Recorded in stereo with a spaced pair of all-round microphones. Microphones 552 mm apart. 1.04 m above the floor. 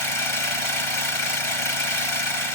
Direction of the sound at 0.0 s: 60° left (ahead or behind).